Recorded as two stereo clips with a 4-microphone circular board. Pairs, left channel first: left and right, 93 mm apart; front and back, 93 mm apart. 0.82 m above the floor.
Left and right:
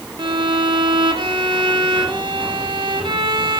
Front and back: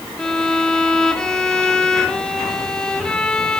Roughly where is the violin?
Right.